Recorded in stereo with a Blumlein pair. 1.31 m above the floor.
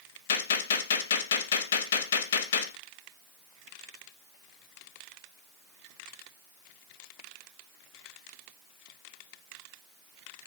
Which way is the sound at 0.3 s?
60° left.